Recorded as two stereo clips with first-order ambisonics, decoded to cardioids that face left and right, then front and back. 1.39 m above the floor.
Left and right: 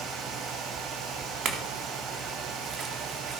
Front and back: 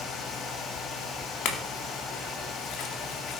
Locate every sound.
1.4 s a clink: 40° right, 2.5 m